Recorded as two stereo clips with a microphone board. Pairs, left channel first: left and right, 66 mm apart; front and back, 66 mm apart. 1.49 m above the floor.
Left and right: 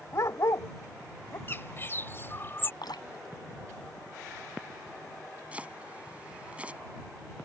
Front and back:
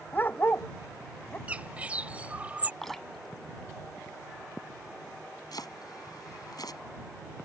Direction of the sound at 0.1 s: 55° left.